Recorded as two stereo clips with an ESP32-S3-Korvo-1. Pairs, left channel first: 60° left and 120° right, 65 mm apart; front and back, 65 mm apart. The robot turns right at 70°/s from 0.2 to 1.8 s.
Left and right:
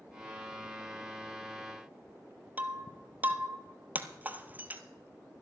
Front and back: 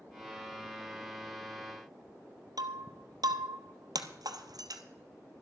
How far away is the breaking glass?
About 1.0 m.